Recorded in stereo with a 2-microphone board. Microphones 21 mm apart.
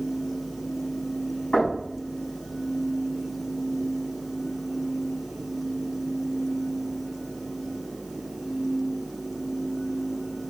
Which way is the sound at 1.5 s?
80° left.